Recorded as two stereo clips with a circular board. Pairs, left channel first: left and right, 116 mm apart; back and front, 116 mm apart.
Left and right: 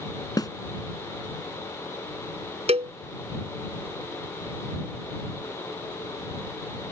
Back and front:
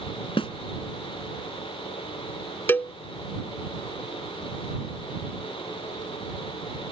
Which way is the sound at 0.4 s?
145° left.